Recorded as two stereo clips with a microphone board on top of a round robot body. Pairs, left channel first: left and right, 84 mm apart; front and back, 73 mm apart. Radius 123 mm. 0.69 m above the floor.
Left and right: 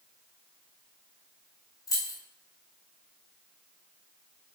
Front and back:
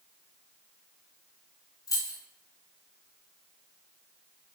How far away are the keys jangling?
About 1.9 m.